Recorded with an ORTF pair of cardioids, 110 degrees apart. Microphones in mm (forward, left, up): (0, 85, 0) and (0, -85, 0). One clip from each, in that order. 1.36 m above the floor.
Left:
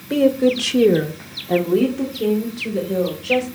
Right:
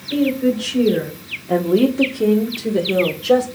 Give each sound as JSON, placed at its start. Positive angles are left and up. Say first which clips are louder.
{"t": 0.1, "sound": "a woman speaking", "louder": "left 3 dB", "azimuth_deg": 65, "distance_m": 1.0}